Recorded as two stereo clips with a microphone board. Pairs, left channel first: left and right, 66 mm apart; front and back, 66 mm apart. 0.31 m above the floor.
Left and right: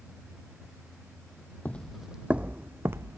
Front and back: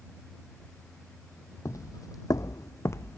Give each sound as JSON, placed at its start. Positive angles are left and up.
{"t": 1.6, "sound": "footsteps", "azimuth_deg": 25}